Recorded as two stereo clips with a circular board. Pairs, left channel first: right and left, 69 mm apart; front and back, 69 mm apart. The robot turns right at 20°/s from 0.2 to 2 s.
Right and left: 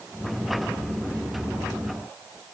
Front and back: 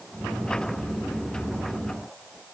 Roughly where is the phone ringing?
No phone ringing in this recording.